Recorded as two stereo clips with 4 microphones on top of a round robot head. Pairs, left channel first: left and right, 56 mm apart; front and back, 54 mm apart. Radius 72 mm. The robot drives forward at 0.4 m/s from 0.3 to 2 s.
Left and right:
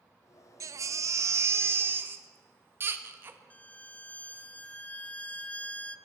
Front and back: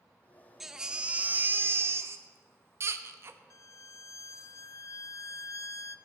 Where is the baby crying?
90° right, 0.6 m; by 3.4 s 140° right, 0.8 m.